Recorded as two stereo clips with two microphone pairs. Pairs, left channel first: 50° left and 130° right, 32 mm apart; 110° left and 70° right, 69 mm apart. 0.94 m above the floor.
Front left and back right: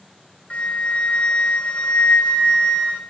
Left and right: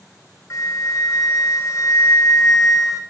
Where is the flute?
80° left, 0.6 m.